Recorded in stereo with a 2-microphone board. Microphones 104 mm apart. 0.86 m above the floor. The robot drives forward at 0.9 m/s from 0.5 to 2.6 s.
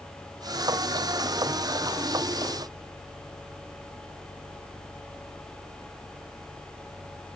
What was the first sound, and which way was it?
Only background noise.